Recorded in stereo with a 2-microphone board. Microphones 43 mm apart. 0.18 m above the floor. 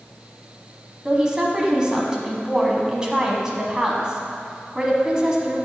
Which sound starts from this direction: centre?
A woman speaking, at 1.1 s.